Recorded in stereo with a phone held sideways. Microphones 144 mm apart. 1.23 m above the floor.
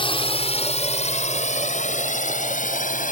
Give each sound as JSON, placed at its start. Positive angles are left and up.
{"t": 0.0, "sound": "a drone", "side_deg": 35}